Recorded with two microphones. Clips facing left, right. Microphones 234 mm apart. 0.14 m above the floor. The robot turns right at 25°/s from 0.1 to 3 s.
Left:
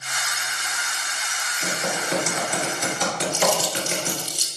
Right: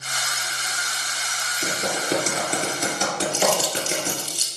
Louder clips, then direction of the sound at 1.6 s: Right 1 dB; 50° right (ahead or behind).